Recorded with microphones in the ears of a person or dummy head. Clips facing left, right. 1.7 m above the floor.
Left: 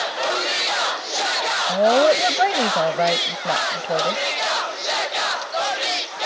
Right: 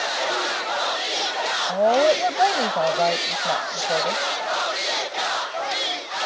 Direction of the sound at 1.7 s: 20° left (ahead or behind).